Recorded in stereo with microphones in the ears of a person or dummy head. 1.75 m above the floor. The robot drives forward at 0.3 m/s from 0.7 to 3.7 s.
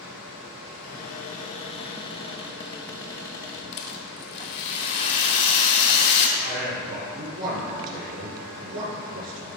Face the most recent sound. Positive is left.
turn(degrees=-65)  # may be behind; listen again after turning